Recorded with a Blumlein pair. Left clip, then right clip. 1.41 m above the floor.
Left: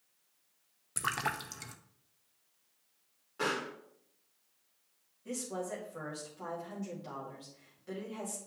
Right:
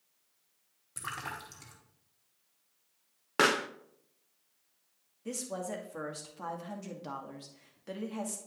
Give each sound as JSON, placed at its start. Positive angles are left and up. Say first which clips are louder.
{"t": 1.0, "sound": "a splash", "louder": "left 5 dB", "azimuth_deg": 20, "distance_m": 0.8}
{"t": 3.4, "sound": "a pop", "louder": "right 7 dB", "azimuth_deg": -50, "distance_m": 0.7}
{"t": 5.2, "sound": "a woman speaking", "louder": "right 1 dB", "azimuth_deg": -25, "distance_m": 2.0}